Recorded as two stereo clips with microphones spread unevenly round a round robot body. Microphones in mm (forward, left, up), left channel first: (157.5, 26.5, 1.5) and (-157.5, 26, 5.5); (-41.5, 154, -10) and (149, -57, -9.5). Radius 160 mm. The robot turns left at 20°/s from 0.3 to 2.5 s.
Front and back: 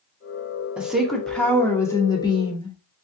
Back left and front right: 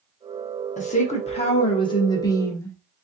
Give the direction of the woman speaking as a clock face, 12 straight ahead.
9 o'clock.